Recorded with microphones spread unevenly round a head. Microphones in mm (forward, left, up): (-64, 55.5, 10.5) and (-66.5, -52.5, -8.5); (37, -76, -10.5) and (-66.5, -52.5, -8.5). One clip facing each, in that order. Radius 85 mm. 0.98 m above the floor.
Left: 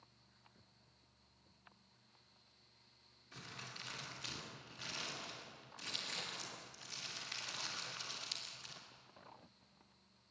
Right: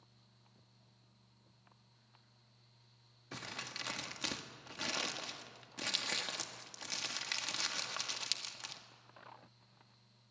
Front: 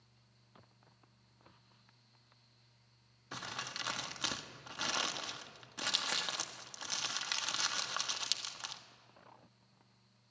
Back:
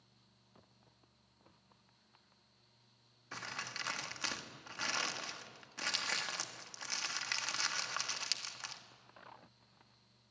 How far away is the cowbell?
No cowbell in this recording.